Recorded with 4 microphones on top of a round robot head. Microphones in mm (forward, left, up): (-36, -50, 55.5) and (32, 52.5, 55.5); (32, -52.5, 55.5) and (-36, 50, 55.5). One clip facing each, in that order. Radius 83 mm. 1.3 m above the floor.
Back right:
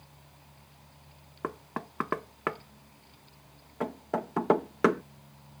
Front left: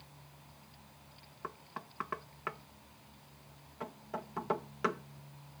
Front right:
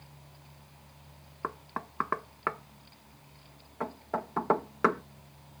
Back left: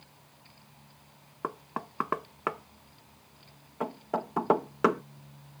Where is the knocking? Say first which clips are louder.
Back right 10 dB, back left 2 dB; 160° right.